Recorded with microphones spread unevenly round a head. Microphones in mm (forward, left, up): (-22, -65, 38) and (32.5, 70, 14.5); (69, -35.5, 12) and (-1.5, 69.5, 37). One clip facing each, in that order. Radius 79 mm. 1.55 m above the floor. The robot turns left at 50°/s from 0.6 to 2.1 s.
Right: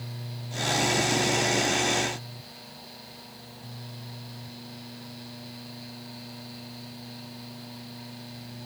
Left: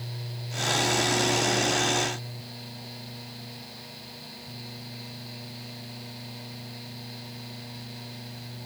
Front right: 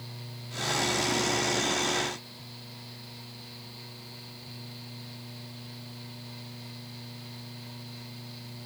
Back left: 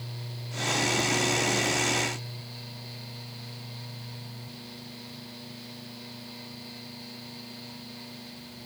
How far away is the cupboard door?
No cupboard door in this recording.